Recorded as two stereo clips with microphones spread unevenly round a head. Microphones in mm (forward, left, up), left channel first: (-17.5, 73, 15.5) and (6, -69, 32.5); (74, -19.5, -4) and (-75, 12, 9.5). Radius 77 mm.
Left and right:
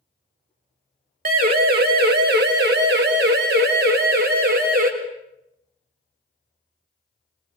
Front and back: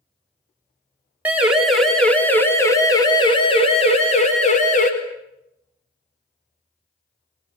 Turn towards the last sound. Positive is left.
turn(degrees=-50)